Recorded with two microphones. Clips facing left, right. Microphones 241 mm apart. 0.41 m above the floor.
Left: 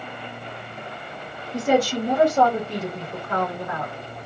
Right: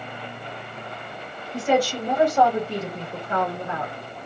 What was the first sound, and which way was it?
A woman speaking, 30° left (ahead or behind).